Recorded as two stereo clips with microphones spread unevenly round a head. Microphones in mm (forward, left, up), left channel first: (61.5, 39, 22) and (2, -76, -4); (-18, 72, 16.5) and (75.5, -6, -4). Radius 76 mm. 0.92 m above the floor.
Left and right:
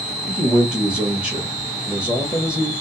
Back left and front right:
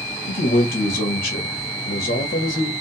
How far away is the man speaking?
About 1.2 m.